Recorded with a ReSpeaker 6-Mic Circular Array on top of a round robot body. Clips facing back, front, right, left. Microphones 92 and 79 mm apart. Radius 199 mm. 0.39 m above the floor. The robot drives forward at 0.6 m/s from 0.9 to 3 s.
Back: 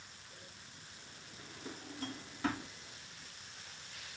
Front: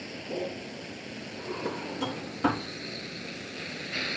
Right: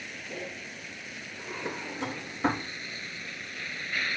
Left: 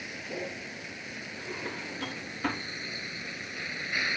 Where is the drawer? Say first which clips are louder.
Front 15 dB, right 2 dB; 15° right; by 2.7 s 35° right.